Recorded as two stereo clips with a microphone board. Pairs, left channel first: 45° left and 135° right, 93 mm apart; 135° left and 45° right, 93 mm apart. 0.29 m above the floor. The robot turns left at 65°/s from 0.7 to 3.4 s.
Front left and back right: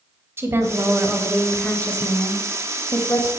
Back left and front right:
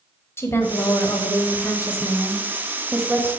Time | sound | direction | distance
0.4 | a woman speaking | straight behind | 1.2 m